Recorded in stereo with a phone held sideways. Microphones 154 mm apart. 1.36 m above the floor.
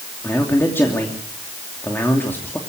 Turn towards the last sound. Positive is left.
turn(degrees=15)  # may be behind; listen again after turning